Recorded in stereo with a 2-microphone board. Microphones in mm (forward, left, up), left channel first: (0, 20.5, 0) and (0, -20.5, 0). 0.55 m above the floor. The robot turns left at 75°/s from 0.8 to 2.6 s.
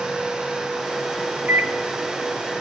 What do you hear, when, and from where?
1.5 s a microwave: 45° right (ahead or behind), 0.7 m; by 1.7 s 55° right (ahead or behind), 0.7 m